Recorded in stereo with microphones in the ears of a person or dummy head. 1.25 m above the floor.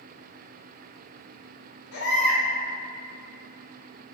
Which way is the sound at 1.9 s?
70° left (ahead or behind).